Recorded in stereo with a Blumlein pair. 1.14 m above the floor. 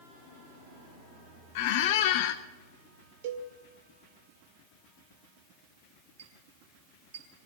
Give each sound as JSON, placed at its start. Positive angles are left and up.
{"t": 1.6, "sound": "a squeak", "azimuth_deg": 50, "distance_m": 0.8}
{"t": 3.2, "sound": "a cowbell", "azimuth_deg": -50, "distance_m": 1.9}
{"t": 6.2, "sound": "a clink", "azimuth_deg": -60, "distance_m": 4.0}